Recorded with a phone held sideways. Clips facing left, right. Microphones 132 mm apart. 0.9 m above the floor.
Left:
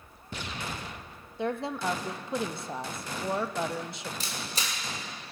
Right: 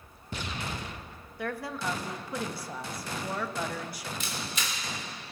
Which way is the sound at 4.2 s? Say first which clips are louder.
Right 1 dB; 35° left (ahead or behind).